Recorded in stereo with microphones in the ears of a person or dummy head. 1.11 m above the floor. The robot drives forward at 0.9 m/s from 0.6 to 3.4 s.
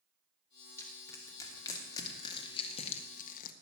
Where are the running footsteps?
I don't hear running footsteps.